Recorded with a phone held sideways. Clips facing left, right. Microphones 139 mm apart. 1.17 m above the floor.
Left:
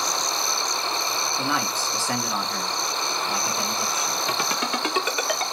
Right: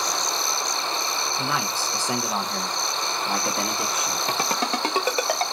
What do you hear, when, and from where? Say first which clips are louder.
1.4 s a man speaking: left 2 dB; centre (ahead or behind), 1.2 m; by 4.2 s 70° right (ahead or behind), 1.4 m
4.3 s a ringtone: right 3 dB; 30° right (ahead or behind), 1.0 m